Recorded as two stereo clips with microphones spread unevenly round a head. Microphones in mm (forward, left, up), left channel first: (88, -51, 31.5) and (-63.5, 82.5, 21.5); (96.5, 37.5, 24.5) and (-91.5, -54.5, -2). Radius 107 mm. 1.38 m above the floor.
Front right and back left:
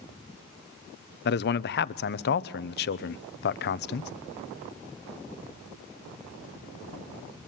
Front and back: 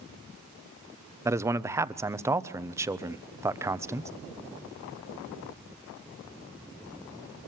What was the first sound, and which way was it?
A man speaking, 80° right.